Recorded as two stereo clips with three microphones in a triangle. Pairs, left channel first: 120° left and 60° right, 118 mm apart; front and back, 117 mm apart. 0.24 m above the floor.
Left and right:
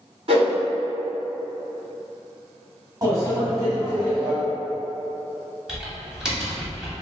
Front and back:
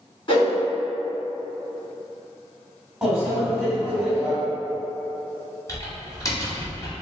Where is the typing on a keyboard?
25° left, 1.1 m.